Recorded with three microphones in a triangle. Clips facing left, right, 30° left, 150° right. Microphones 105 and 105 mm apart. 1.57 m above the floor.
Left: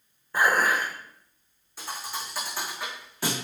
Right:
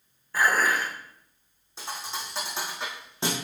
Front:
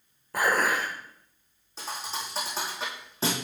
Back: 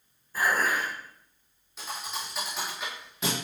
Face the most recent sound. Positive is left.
turn(degrees=-25)